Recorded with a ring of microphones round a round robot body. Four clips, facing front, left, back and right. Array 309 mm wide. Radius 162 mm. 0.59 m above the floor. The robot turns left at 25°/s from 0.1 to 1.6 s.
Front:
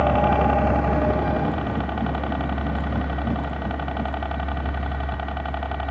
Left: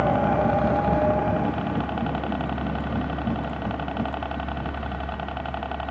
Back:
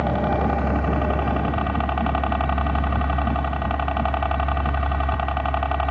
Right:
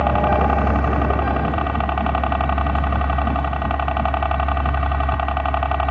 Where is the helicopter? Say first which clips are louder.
Right 3 dB, front 3 dB; 75° right; by 5.9 s 110° right.